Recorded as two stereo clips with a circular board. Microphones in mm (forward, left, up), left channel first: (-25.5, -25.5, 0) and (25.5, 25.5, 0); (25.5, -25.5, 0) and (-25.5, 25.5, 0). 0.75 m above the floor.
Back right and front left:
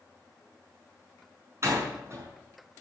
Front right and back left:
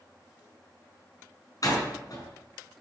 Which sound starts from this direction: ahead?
A door slam, at 1.6 s.